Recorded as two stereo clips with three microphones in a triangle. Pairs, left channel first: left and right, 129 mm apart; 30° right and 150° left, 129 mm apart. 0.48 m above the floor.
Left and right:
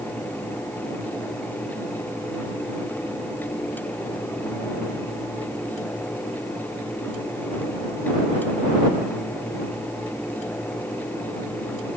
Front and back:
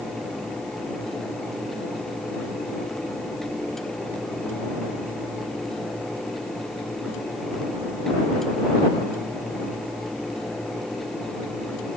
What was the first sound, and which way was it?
Only background noise.